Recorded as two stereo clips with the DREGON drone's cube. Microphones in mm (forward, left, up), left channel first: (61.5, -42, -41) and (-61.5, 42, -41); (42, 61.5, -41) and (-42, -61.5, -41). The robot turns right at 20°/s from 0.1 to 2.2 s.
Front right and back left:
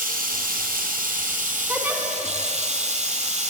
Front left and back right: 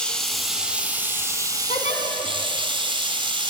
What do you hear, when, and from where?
0.0 s running water: 140° left, 1.2 m; by 3.5 s straight behind, 1.2 m
1.7 s a giggle: 70° left, 1.5 m; by 2.0 s 75° left, 1.5 m